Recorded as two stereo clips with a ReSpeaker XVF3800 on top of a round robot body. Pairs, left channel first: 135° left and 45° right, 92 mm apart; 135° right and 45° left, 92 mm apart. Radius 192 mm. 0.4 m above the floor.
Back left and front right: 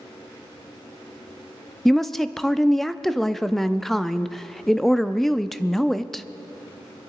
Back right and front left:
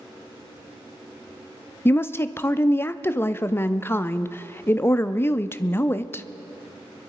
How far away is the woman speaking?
About 0.8 m.